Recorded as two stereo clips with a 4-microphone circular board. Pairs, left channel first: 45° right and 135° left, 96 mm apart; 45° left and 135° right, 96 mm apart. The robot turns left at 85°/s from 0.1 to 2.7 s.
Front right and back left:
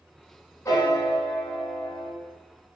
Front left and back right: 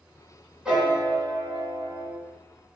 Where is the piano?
55° right, 1.0 m; by 2.2 s 175° left, 1.0 m.